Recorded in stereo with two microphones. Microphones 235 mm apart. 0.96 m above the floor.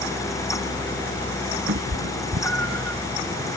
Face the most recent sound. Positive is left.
turn(degrees=-55)  # may be behind; listen again after turning